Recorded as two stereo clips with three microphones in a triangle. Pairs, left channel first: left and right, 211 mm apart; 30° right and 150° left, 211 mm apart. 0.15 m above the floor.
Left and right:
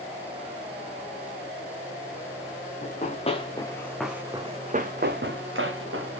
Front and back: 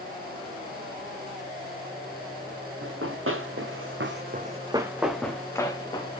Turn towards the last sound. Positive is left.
turn(degrees=-95)